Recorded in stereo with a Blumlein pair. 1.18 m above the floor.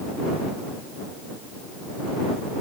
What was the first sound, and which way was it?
Only background noise.